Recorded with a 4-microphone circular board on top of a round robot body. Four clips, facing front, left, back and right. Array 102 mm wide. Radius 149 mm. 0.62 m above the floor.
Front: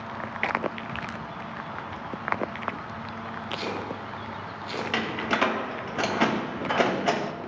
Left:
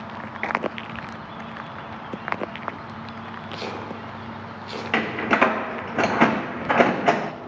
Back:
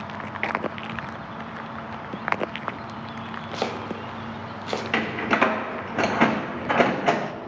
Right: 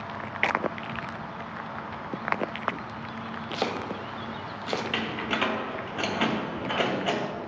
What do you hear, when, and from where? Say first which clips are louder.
3.5 s chopping: right 3 dB, back 4 dB; 135° right, 0.9 m
4.9 s a door slam: left 8 dB, back 4 dB; 110° left, 0.6 m